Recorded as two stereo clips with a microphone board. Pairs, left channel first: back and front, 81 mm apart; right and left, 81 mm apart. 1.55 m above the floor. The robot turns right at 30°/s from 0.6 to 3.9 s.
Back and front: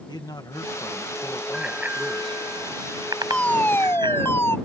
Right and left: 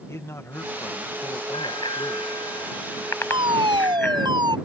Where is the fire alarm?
100° left; by 4.6 s 120° left.